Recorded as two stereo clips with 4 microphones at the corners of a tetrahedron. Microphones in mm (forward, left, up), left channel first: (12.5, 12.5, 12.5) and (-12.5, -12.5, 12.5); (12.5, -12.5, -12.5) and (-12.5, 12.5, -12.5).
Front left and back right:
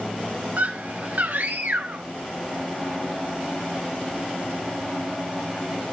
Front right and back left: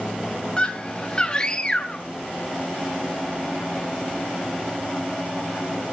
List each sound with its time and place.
0.6 s a scream: 105° right, 0.8 m